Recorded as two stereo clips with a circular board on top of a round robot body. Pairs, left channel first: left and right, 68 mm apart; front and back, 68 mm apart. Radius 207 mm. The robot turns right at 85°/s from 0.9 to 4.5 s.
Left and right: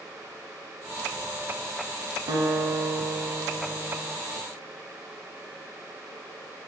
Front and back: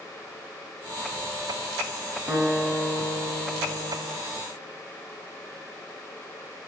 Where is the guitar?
110° right, 0.7 m; by 4.2 s 50° left, 0.7 m.